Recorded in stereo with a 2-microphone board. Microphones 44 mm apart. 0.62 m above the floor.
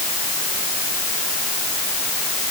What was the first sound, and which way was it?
Only background noise.